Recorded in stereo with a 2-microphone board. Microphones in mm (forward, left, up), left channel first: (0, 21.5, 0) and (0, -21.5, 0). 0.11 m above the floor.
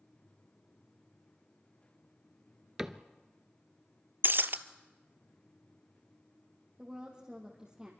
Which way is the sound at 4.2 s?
55° right (ahead or behind).